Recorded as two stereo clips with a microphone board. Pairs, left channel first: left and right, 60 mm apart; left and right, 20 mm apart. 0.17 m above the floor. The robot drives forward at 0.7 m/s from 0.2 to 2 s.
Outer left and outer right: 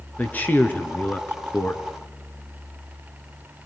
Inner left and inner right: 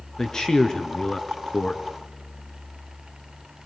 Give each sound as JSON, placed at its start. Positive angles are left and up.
{"t": 0.2, "sound": "a man speaking", "side_deg": 30, "distance_m": 3.0}